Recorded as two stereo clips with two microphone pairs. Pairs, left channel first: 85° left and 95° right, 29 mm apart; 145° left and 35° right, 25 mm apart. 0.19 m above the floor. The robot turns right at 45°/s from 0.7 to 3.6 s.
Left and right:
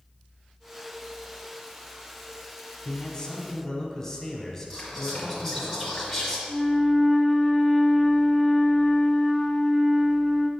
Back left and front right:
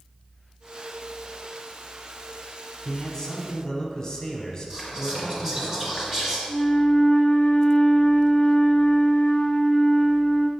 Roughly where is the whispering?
Ahead.